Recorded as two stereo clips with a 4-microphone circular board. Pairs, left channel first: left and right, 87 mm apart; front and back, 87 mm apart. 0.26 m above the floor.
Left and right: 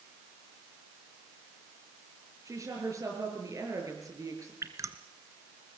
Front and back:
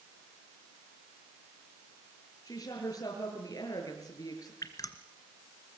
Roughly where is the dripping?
Ahead right.